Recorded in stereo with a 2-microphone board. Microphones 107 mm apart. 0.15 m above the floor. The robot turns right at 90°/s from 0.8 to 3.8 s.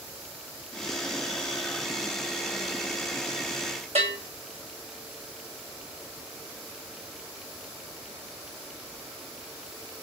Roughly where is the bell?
Right.